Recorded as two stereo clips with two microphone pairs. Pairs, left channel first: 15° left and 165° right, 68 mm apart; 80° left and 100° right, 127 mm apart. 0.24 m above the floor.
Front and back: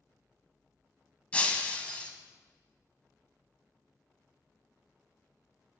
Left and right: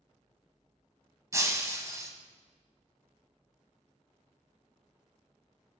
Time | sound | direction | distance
1.3 | breaking glass | 45° right | 0.9 m